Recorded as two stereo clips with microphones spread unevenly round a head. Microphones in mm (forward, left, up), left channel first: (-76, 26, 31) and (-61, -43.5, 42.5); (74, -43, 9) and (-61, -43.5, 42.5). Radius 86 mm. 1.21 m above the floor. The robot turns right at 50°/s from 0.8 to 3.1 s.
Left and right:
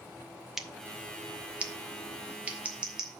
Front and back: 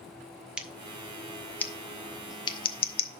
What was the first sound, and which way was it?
Scissors, 135° right.